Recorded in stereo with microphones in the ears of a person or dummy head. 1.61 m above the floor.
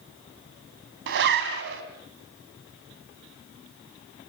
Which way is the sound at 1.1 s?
65° right (ahead or behind).